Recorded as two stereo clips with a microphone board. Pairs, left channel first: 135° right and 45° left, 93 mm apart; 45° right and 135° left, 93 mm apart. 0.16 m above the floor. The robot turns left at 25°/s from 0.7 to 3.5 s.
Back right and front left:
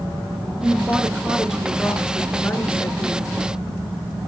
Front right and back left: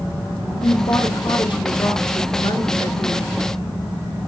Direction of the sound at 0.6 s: 20° right.